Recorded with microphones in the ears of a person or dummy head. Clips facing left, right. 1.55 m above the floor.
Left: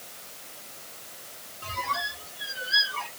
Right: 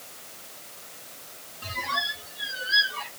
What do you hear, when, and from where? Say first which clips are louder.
1.6 s a squeak: left 1 dB; 25° right (ahead or behind), 1.5 m